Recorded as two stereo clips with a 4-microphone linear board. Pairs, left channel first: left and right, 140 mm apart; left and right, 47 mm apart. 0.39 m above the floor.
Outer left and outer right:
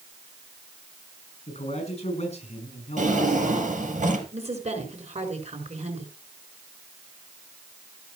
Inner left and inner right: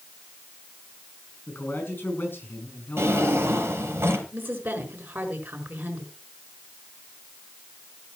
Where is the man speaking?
50° left (ahead or behind), 5.5 m.